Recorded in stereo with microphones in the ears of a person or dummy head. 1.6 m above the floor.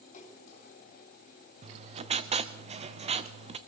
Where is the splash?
40° left (ahead or behind), 3 m.